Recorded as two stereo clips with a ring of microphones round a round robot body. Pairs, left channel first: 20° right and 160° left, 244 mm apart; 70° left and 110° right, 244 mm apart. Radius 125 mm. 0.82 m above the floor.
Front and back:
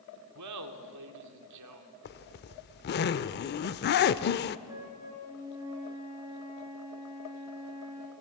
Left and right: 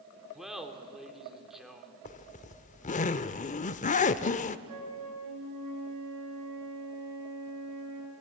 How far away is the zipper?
About 0.6 m.